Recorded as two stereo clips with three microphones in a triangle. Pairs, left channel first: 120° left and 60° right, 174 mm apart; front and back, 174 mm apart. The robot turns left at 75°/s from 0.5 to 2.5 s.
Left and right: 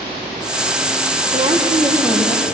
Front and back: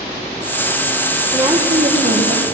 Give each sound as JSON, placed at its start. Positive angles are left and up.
{"t": 1.3, "sound": "a woman speaking", "azimuth_deg": -90, "distance_m": 3.5}